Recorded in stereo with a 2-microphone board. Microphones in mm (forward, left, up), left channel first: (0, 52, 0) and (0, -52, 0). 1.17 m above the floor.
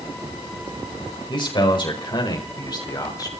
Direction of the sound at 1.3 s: 55° left (ahead or behind).